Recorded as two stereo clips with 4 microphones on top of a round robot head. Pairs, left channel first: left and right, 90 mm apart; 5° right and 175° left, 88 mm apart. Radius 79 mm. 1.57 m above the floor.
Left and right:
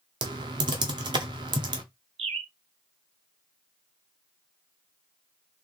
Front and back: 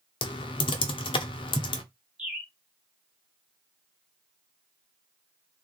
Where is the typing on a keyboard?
40° right, 0.7 m.